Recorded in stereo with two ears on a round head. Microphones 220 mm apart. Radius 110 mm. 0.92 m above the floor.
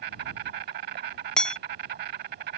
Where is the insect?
40° right (ahead or behind).